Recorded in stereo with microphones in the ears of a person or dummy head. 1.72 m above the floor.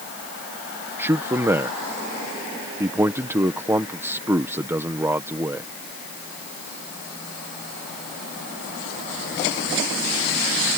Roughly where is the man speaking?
Centre.